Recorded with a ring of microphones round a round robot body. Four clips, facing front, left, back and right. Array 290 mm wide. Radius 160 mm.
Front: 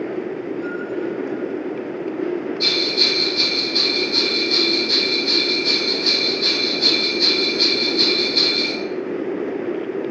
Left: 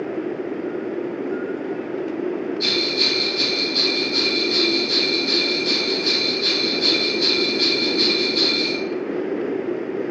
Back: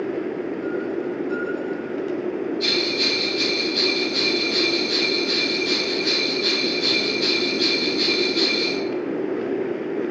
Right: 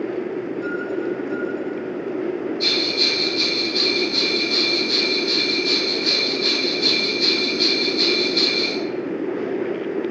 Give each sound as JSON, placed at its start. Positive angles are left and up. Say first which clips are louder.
{"t": 2.6, "sound": "a bell", "louder": "even, front 1 dB", "azimuth_deg": 0, "distance_m": 3.0}